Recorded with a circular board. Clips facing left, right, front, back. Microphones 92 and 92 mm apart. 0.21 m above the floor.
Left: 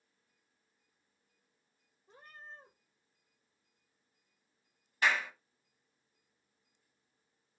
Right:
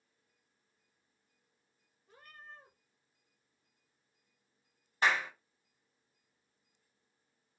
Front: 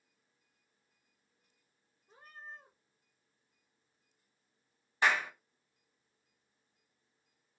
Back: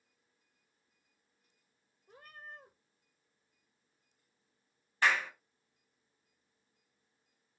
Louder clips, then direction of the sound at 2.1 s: Left 2 dB, even; 155° left.